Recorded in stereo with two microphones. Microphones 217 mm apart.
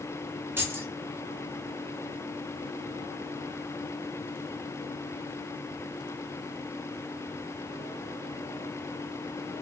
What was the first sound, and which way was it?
Keys jangling, 10° right (ahead or behind).